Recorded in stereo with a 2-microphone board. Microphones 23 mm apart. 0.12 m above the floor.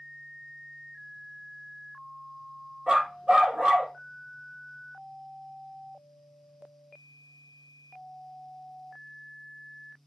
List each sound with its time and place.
2.9 s a dog barking: 45° right (ahead or behind), 1.6 m